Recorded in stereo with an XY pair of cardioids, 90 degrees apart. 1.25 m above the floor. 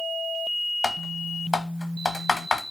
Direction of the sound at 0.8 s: 25° left.